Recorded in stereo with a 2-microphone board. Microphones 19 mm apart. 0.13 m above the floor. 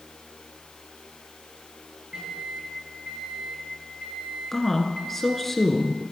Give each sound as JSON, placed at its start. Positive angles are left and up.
{"t": 2.1, "sound": "a microwave", "side_deg": -45, "distance_m": 2.0}
{"t": 4.5, "sound": "a woman speaking", "side_deg": 15, "distance_m": 1.3}